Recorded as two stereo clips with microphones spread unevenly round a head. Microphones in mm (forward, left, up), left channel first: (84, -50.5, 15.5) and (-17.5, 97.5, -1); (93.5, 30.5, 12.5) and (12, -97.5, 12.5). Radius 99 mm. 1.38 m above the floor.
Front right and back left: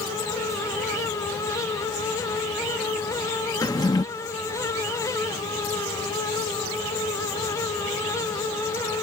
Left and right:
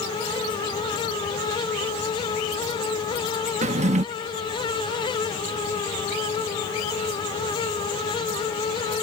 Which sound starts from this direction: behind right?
A drawer, at 3.6 s.